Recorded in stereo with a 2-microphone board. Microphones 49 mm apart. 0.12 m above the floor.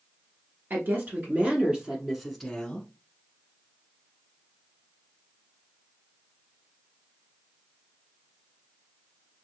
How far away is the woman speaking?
About 1.6 m.